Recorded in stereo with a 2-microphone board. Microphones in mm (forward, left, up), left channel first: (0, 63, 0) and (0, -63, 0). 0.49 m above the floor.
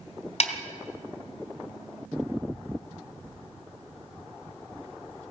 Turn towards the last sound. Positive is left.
turn(degrees=55)  # may be behind; listen again after turning